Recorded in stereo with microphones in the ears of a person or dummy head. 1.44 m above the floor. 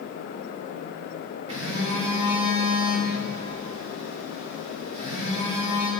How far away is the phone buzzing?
About 2 m.